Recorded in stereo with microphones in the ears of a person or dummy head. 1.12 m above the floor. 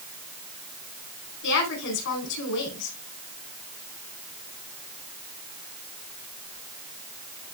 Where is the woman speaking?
65° left (ahead or behind), 4 m.